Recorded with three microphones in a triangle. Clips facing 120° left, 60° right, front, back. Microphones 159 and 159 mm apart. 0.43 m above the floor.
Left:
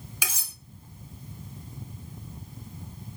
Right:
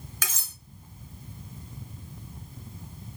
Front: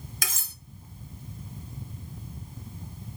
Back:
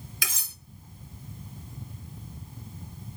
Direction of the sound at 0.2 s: 40° left.